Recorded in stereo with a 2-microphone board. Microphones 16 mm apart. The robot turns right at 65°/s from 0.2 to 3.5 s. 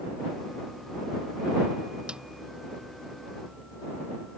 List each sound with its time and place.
2.1 s a snare drum: 80° right; by 2.2 s 90° right